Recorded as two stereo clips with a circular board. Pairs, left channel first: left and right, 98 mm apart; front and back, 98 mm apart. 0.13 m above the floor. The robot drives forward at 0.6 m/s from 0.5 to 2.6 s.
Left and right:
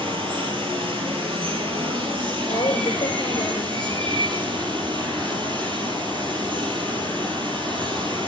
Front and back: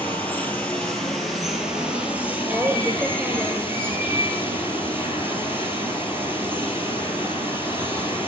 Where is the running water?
75° right, 2 m; by 8.3 s 115° right, 2 m.